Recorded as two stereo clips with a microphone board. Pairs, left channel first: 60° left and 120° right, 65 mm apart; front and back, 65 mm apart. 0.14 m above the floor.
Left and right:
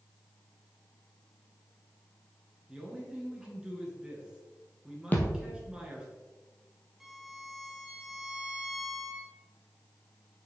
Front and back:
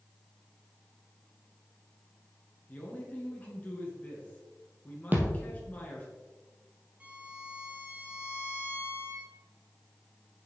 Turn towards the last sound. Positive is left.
turn(degrees=165)